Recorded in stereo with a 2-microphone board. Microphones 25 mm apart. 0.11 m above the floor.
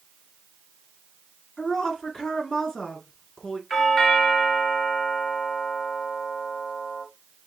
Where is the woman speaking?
25° left (ahead or behind), 1.3 m.